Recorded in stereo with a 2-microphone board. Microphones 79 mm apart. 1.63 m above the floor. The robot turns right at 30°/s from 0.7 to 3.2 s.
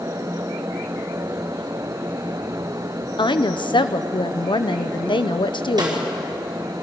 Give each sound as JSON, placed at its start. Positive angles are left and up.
{"t": 3.2, "sound": "a woman speaking", "side_deg": 80, "distance_m": 0.7}
{"t": 5.8, "sound": "a snare drum", "side_deg": -65, "distance_m": 4.0}